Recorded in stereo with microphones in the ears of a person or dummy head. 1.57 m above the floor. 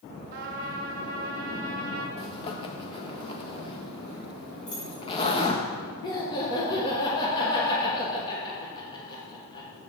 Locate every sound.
0.3 s a trumpet: 50° right (ahead or behind), 1.3 m
2.2 s a zipper: 25° left (ahead or behind), 1.2 m
4.7 s keys jangling: 70° left (ahead or behind), 3.5 m
6.0 s laughter: 20° left (ahead or behind), 1.4 m